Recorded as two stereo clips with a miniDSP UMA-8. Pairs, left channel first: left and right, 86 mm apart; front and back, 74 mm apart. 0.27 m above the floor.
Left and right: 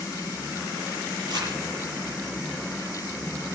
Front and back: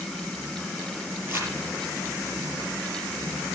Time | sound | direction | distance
1.3 | crumpling | 125° right | 6 m